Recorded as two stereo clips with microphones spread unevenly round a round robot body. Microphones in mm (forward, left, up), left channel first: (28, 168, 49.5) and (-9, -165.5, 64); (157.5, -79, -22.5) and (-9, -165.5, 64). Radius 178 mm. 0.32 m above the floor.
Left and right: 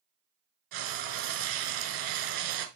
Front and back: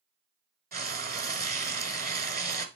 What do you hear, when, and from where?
0.7 s frying: 95° right, 1.5 m